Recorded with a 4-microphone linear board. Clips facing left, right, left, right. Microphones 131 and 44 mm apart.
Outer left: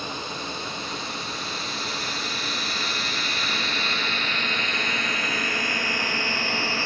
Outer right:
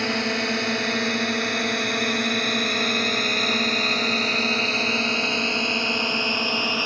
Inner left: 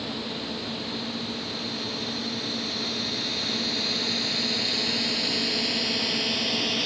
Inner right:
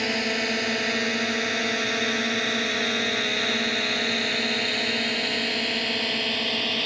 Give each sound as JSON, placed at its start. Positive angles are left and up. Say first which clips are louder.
{"t": 0.0, "sound": "a drone", "louder": "outer right 8 dB, inner right 8 dB", "side_deg": -75}